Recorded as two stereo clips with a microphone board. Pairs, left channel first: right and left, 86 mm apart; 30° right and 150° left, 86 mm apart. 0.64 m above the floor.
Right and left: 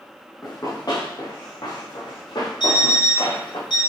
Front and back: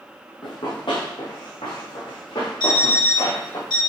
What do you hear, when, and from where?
0.4 s running footsteps: 45° right, 2.5 m; by 3.6 s 60° right, 4.5 m
2.6 s an alarm clock: 60° right, 4 m